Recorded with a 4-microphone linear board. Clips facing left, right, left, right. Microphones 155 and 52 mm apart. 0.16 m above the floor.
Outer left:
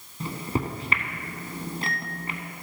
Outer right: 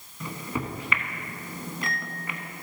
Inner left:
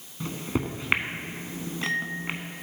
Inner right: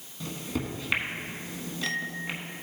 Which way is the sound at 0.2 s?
35° left (ahead or behind).